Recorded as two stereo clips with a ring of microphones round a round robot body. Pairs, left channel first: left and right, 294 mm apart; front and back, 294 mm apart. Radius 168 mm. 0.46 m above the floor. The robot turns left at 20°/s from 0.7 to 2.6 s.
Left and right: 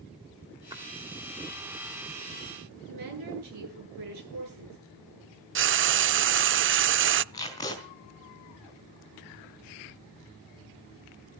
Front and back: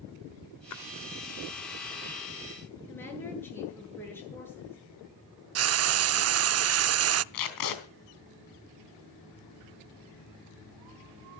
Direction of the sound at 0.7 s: 15° right.